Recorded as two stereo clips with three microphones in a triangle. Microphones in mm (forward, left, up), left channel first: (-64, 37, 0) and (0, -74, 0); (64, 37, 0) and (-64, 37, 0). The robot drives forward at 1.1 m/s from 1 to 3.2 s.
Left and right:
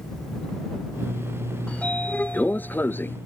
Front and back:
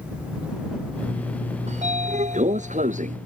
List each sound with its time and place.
1.7 s a sliding door: 160° right; by 3.2 s 165° right